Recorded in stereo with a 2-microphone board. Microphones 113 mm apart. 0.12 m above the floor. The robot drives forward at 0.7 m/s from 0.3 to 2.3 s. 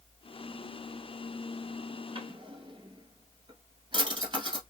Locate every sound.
2.1 s a drawer: 45° right (ahead or behind), 1.2 m; by 4.6 s 40° right (ahead or behind), 1.2 m